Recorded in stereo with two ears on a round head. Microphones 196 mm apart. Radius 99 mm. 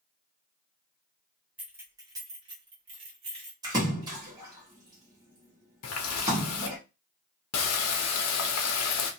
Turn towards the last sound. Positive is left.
turn(degrees=75)  # may be behind; listen again after turning